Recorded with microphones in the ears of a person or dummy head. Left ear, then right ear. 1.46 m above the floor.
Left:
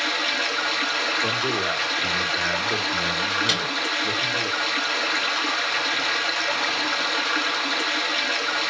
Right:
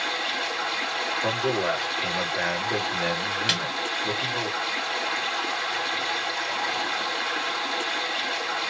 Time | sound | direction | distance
0.0 | running water | 50° left (ahead or behind) | 2.5 m
1.2 | a man speaking | 30° left (ahead or behind) | 2.5 m
3.5 | a snare drum | centre (ahead or behind) | 1.9 m